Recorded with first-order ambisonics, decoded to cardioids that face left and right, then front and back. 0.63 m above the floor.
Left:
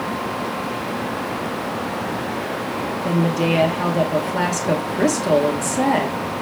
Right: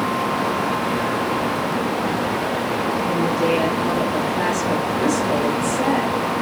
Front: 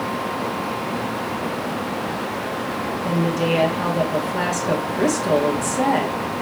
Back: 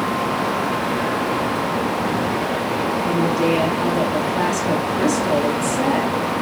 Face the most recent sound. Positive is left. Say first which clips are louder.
# left 1 dB, back 1 dB
turn(degrees=85)